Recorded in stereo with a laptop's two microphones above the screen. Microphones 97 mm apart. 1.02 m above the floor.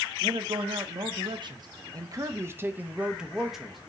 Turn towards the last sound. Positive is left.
turn(degrees=0)  # may be behind; listen again after turning